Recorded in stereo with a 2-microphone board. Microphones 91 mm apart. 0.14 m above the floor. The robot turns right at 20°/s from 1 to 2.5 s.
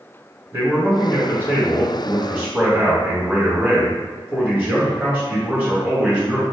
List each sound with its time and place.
0.5 s a man speaking: 25° right (ahead or behind), 1.7 m; by 6.4 s 20° right (ahead or behind), 1.7 m